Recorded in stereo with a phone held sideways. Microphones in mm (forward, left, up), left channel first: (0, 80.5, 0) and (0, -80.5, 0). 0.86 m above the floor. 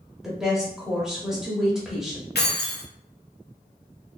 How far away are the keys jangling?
About 0.6 m.